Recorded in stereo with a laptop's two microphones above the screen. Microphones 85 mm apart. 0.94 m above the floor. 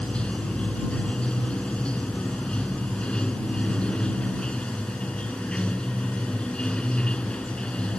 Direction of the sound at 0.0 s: 10° left (ahead or behind).